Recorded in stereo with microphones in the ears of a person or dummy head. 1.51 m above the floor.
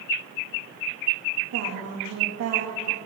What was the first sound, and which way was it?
A woman speaking, 85° right.